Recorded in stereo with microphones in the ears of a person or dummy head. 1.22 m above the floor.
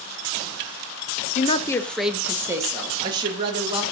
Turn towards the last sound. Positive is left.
turn(degrees=-30)  # may be behind; listen again after turning